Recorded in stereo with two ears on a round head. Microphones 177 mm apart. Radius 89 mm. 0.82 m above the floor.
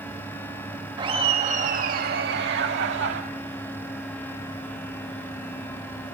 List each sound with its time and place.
1.0 s laughter: 20° right (ahead or behind), 1.3 m; by 3.2 s 65° right (ahead or behind), 2 m